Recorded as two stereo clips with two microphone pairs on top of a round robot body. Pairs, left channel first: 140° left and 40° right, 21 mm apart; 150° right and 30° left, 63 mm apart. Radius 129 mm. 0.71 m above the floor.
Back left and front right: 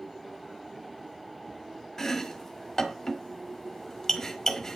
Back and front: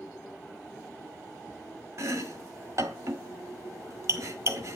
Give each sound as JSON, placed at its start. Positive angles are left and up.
{"t": 2.0, "sound": "chopping", "azimuth_deg": 70, "distance_m": 1.4}